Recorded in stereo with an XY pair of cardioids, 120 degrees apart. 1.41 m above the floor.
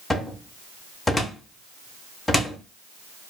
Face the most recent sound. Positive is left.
turn(degrees=10)